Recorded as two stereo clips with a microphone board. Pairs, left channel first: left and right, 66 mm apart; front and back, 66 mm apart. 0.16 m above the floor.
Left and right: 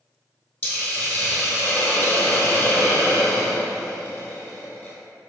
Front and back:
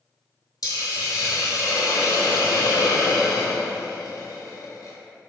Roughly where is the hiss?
Ahead.